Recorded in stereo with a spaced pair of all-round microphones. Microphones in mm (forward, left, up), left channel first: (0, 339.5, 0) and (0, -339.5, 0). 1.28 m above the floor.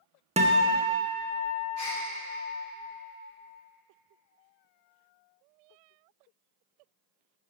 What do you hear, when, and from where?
0.4 s a guitar: 10° right (ahead or behind), 0.5 m
1.8 s a gasp: 60° right (ahead or behind), 2.5 m